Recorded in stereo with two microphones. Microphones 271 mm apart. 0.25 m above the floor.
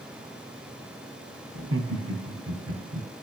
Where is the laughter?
55° right (ahead or behind), 2.5 m.